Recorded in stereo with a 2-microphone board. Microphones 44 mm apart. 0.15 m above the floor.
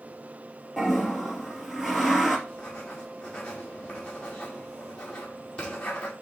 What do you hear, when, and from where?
0.8 s a toilet flushing: 5° right (ahead or behind), 3 m
2.5 s writing: 20° left (ahead or behind), 4.5 m